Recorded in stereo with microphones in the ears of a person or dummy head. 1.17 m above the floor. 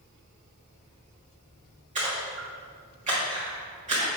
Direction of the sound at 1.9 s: 35° right (ahead or behind).